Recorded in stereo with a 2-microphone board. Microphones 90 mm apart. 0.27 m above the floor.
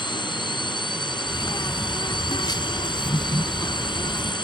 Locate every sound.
0.0 s a drone: 60° left (ahead or behind)
1.3 s a bird: 55° left (ahead or behind)